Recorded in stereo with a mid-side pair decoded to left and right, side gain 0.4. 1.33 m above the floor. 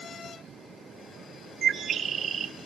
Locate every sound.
1.6 s a bird: 60° right, 2 m